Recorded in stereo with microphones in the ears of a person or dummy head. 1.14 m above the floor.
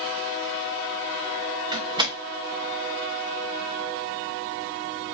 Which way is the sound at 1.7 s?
25° right (ahead or behind).